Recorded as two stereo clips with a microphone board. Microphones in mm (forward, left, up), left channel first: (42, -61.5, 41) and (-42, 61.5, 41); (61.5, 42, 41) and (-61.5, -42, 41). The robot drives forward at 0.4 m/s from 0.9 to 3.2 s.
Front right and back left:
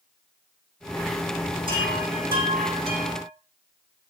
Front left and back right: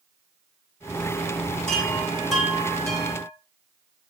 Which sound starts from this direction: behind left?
A chime, at 1.7 s.